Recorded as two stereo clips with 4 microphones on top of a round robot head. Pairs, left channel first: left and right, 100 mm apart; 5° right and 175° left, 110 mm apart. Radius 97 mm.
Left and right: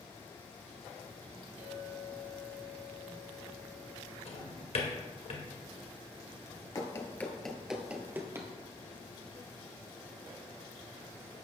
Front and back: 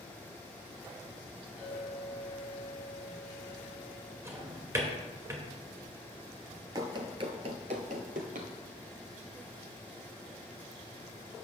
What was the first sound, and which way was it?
A clink, 100° right.